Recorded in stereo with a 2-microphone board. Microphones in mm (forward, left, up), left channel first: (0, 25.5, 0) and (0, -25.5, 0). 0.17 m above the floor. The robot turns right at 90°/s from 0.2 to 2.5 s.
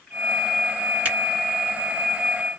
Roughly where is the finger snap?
Right.